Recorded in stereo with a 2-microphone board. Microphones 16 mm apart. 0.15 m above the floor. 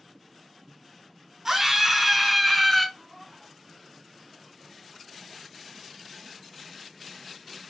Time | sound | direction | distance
1.4 | a scream | 15° right (ahead or behind) | 1.1 m
3.0 | a cat meowing | 15° right (ahead or behind) | 1.7 m